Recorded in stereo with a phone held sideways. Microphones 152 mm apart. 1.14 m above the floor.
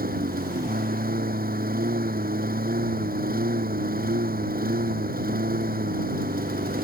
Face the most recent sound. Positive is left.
turn(degrees=-75)  # may be behind; listen again after turning